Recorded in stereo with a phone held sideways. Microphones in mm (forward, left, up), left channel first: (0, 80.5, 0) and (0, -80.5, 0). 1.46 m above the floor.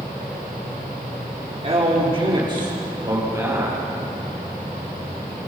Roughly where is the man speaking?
Right.